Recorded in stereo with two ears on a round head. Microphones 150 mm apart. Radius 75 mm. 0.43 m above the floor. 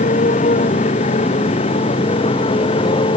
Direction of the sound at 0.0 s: 45° left (ahead or behind).